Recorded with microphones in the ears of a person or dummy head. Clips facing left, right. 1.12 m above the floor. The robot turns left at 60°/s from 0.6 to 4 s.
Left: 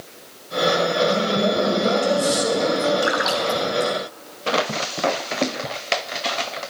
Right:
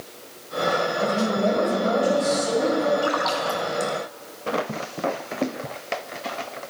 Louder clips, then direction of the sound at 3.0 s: Left 2 dB; 20° left (ahead or behind).